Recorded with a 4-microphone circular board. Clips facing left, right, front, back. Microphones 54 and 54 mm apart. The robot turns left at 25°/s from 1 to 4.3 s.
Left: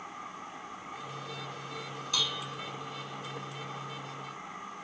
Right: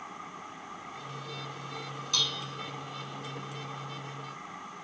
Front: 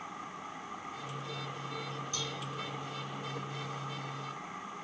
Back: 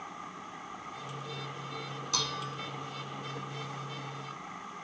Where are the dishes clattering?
175° left; by 2.6 s 160° left.